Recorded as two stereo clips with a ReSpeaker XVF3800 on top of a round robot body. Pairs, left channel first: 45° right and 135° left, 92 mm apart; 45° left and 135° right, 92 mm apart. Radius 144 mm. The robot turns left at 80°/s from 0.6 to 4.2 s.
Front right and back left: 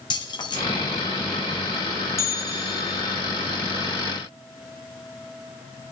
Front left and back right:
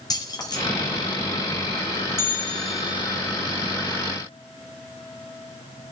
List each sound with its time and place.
0.1 s keys jangling: 5° right, 1.9 m
2.2 s a bell: straight ahead, 1.1 m; by 3.2 s 85° right, 1.1 m